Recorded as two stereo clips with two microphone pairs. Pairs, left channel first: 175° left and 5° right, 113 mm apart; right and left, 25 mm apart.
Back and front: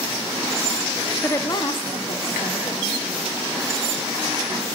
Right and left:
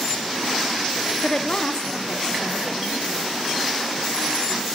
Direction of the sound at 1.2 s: 115° right.